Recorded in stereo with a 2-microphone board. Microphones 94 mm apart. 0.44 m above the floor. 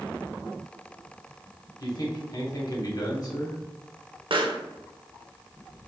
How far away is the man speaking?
About 1.2 m.